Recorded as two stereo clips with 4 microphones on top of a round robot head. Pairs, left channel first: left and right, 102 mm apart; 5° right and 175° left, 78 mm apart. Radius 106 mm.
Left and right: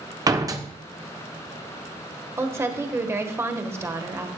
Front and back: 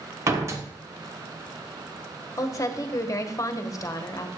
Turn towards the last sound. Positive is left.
turn(degrees=-35)